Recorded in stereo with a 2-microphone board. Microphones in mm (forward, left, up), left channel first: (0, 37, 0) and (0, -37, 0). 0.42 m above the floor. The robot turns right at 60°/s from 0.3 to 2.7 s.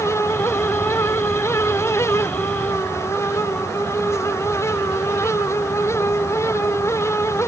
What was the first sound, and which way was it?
Only background noise.